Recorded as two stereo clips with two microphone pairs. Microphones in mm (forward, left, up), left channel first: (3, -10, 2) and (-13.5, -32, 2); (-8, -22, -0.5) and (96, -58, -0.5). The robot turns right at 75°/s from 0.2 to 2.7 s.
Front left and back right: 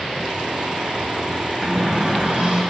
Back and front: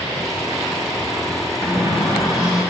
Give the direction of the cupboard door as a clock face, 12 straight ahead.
7 o'clock.